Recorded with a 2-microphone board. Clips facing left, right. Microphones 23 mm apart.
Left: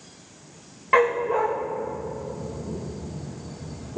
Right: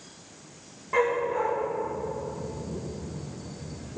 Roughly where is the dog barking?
Left.